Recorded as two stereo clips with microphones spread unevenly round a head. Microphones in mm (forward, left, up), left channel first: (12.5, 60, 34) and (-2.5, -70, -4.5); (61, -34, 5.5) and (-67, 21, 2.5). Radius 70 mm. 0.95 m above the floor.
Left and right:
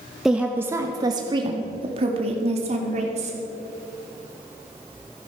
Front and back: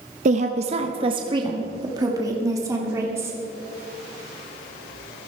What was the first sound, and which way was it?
A woman speaking, 175° right.